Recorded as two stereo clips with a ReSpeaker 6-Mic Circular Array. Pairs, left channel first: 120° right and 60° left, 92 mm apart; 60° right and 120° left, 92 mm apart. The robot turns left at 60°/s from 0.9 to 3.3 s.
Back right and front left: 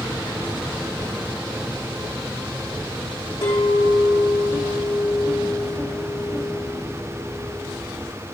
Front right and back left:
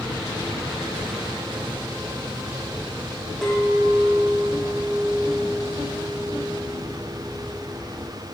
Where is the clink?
140° right, 4 m.